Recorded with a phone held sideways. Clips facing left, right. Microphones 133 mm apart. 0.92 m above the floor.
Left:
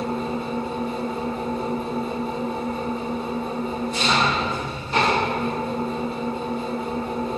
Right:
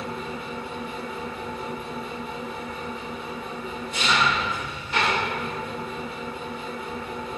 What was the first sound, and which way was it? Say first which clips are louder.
An engine running: left 7 dB; 35° left (ahead or behind).